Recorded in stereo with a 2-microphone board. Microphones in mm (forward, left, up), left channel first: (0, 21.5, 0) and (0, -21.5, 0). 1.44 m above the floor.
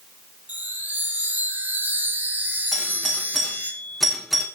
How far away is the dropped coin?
I don't hear a dropped coin.